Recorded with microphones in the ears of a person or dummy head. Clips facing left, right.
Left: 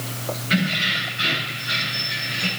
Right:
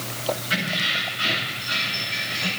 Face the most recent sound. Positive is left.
turn(degrees=30)  # may be behind; listen again after turning